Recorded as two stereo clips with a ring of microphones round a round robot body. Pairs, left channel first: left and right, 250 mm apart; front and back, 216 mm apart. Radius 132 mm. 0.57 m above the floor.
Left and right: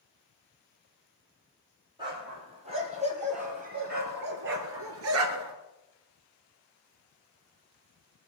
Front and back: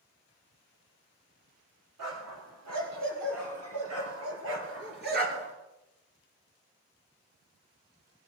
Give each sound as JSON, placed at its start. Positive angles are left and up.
{"t": 2.0, "sound": "a dog barking", "azimuth_deg": -160, "distance_m": 5.0}